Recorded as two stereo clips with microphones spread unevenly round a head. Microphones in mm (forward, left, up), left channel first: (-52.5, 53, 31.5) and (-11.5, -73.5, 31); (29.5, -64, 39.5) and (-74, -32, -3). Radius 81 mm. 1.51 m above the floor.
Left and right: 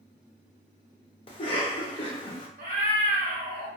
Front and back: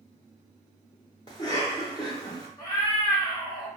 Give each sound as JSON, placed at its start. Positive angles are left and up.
{"t": 1.3, "sound": "a cough", "azimuth_deg": 50, "distance_m": 0.6}
{"t": 2.6, "sound": "a cat meowing", "azimuth_deg": -35, "distance_m": 1.1}